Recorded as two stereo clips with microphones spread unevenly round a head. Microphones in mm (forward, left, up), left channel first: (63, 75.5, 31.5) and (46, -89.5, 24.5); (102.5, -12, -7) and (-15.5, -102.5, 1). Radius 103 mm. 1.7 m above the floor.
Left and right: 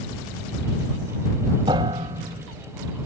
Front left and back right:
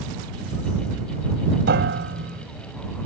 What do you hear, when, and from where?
1.7 s a piano: 170° right